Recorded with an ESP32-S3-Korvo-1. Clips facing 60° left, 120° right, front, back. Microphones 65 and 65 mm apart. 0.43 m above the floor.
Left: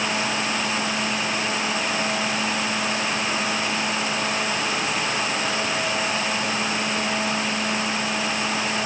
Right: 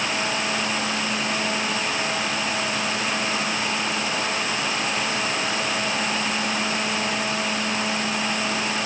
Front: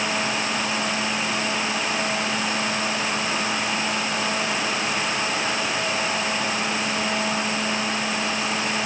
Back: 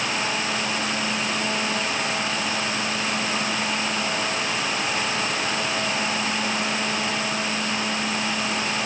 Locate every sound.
Only background noise.